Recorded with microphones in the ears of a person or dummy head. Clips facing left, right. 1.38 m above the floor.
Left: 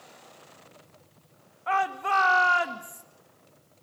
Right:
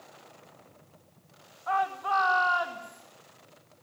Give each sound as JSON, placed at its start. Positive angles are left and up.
{"t": 1.7, "sound": "a shout", "side_deg": 40, "distance_m": 2.0}